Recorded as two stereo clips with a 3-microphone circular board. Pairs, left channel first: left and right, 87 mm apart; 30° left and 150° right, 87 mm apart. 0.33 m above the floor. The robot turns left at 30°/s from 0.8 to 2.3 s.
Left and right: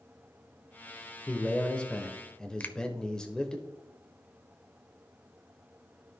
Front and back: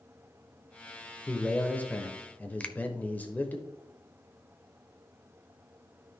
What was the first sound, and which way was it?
A man speaking, 60° left.